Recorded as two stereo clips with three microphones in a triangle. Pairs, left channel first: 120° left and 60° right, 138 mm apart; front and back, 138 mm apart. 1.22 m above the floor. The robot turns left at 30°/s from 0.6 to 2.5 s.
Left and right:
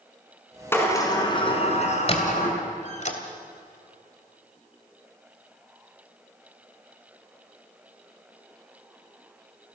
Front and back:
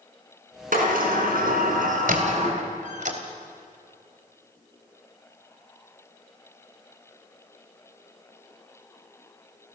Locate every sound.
0.7 s a sliding door: 165° right, 4 m; by 2.6 s 140° left, 4 m
2.1 s a squeak: 165° left, 2.5 m; by 3.2 s 155° left, 2.5 m